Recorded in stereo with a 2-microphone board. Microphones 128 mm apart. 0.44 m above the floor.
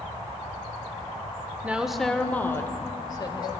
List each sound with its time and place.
1.6 s a woman speaking: 10° right (ahead or behind), 0.9 m; by 3.5 s 35° left (ahead or behind), 1.6 m